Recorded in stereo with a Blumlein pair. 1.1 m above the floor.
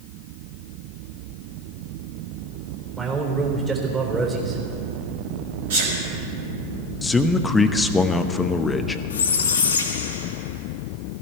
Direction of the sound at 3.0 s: 20° right.